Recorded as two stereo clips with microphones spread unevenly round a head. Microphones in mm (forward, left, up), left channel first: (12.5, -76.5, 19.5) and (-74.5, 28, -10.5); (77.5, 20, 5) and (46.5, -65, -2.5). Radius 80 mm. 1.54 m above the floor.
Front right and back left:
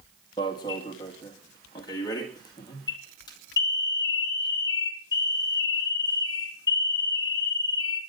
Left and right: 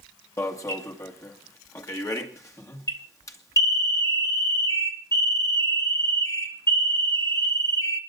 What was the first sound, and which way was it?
An alarm, 15° left.